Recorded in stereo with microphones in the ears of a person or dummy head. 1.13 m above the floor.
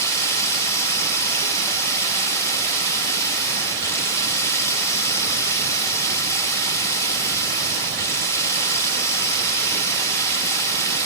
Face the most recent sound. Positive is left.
turn(degrees=15)  # may be behind; listen again after turning